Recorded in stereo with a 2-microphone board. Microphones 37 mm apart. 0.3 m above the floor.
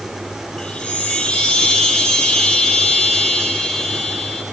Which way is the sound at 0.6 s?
20° left (ahead or behind).